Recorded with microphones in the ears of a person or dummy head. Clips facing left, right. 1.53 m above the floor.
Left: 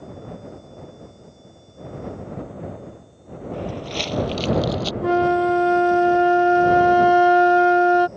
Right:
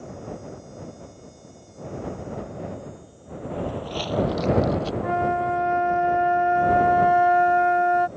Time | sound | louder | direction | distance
3.5 | footsteps | even | 35° left (ahead or behind) | ?
5.0 | a flute | left 9 dB | 60° left (ahead or behind) | ?